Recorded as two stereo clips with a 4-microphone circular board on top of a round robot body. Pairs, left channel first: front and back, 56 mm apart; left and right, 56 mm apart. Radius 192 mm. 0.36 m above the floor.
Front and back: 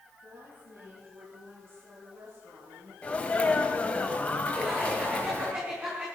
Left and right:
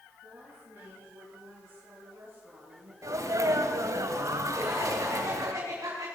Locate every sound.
0.2 s a woman speaking: 140° right, 10 m; by 2.9 s 130° right, 8.5 m
3.0 s a sneeze: 70° right, 3 m
4.5 s laughter: 115° right, 6.5 m